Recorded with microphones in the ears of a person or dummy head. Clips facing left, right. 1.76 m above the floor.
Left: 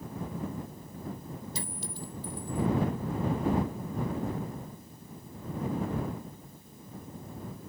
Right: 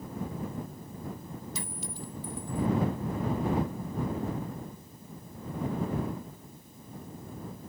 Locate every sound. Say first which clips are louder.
1.6 s a clink: even; 35° left (ahead or behind)